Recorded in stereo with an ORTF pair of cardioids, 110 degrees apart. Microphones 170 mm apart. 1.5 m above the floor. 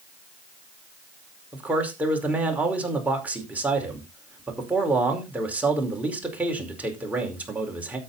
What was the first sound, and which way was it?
A man speaking, 10° right.